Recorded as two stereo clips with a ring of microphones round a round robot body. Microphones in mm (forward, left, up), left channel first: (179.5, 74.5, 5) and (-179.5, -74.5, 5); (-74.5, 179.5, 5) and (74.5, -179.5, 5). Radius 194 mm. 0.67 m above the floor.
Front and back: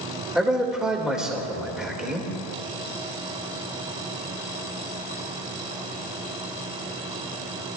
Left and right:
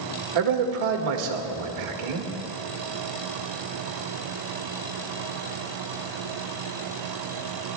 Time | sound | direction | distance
0.3 | a man speaking | 70° right | 1.8 m